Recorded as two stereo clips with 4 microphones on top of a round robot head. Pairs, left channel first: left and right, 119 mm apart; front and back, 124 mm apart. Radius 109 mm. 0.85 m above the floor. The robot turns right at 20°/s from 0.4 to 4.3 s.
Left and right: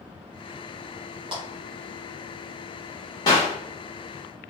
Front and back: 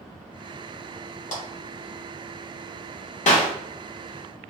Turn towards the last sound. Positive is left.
turn(degrees=45)